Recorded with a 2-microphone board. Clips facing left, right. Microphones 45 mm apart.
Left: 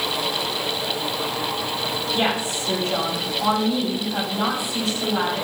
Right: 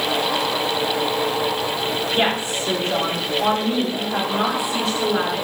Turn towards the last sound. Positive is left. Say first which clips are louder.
# right 1 dB
turn(degrees=-55)  # may be behind; listen again after turning